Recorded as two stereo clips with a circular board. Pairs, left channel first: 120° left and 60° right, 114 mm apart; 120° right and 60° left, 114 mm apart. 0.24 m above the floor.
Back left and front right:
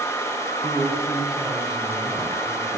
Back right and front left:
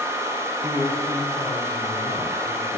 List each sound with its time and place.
0.6 s a man speaking: 150° right, 4 m; by 2.8 s 135° right, 3 m